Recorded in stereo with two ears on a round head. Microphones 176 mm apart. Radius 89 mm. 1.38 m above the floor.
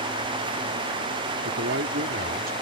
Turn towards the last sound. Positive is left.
turn(degrees=-45)  # may be behind; listen again after turning